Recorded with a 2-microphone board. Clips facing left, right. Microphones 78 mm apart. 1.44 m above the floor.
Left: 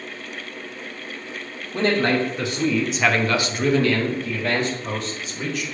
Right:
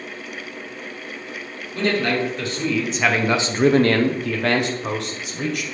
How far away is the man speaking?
About 1.1 m.